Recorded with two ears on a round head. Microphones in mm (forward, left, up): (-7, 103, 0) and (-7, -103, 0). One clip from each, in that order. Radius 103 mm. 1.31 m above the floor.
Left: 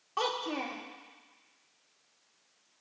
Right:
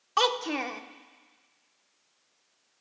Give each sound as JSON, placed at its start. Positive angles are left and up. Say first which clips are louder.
{"t": 0.2, "sound": "a child speaking", "louder": "right 6 dB", "side_deg": -50, "distance_m": 0.6}